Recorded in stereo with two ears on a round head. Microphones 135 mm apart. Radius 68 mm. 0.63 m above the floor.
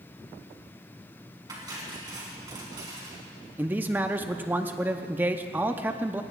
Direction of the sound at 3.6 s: 15° right (ahead or behind).